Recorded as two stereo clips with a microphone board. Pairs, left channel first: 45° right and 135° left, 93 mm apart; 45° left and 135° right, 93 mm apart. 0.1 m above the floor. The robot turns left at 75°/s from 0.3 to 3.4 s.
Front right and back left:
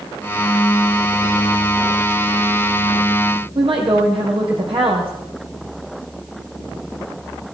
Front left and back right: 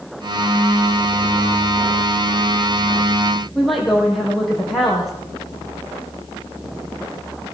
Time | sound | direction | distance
3.5 | a woman speaking | 135° left | 4 m